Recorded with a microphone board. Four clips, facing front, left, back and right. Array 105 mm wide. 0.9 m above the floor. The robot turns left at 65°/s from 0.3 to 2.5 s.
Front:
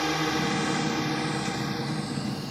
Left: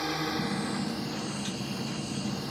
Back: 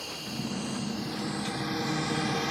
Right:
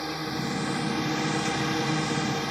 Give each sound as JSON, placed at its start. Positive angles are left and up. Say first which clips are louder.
{"t": 0.0, "sound": "a drone", "louder": "even, front 11 dB", "azimuth_deg": 5}